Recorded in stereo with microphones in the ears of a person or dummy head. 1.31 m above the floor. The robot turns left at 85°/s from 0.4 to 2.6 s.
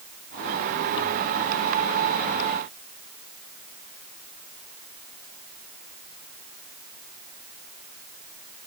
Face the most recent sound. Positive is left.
No sound to turn to.